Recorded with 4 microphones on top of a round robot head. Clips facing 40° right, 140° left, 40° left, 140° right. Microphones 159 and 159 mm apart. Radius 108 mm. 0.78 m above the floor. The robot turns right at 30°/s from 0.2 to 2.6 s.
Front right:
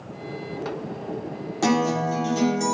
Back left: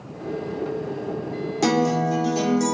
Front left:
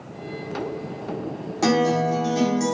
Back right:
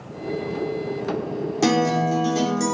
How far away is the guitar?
About 1.0 m.